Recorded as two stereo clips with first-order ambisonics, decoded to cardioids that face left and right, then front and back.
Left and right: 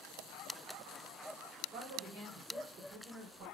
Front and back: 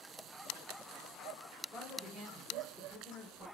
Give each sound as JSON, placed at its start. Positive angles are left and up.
{"t": 1.7, "sound": "a man speaking", "azimuth_deg": -95, "distance_m": 1.1}